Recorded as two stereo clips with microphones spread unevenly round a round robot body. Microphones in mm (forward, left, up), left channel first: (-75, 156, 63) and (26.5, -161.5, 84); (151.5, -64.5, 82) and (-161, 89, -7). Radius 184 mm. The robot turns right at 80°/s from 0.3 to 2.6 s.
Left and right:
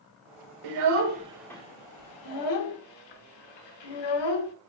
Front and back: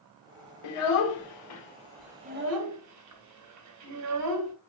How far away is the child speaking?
About 0.9 m.